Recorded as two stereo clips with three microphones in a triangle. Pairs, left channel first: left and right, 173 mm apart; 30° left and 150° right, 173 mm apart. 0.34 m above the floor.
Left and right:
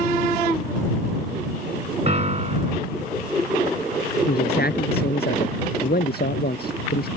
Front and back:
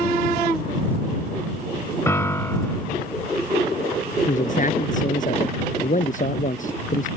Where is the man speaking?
70° left.